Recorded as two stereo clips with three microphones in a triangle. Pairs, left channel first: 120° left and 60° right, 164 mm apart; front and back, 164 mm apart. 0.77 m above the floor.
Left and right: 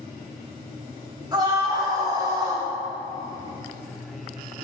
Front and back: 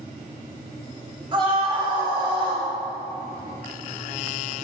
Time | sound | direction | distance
1.3 | a scream | 125° right | 3 m